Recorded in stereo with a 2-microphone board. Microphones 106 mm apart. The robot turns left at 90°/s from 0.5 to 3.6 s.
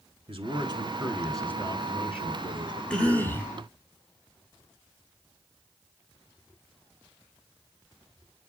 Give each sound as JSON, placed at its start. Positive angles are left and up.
{"t": 0.3, "sound": "a man speaking", "azimuth_deg": -110, "distance_m": 1.9}
{"t": 2.9, "sound": "a cough", "side_deg": 10, "distance_m": 1.7}